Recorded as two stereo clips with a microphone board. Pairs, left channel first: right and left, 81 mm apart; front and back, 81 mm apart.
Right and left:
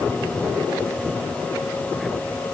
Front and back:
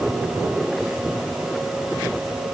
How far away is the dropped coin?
I don't hear a dropped coin.